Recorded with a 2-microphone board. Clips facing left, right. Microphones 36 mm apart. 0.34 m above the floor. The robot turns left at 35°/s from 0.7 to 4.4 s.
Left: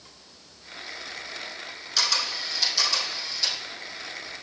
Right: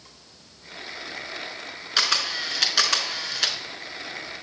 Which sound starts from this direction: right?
A camera shutter, at 2.0 s.